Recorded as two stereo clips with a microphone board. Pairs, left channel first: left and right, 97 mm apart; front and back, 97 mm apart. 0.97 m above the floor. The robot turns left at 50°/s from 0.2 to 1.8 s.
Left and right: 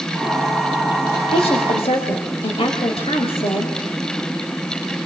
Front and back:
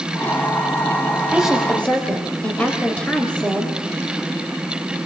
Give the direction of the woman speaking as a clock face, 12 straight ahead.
9 o'clock.